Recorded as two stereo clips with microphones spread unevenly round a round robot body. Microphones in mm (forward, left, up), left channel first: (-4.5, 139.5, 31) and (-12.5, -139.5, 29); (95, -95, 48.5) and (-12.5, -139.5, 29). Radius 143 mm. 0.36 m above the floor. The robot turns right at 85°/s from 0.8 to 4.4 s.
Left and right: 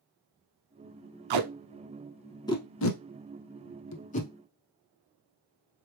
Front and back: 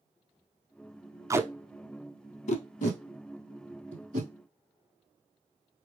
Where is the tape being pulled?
90° right, 0.6 m; by 4.3 s 165° left, 0.6 m.